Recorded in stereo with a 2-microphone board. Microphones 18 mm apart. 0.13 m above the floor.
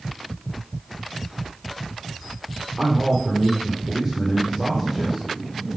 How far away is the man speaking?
About 5 m.